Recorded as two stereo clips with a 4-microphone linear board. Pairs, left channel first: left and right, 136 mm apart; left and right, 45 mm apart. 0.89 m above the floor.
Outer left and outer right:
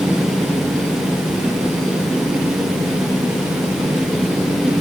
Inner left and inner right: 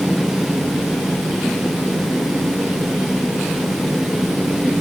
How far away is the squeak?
No squeak in this recording.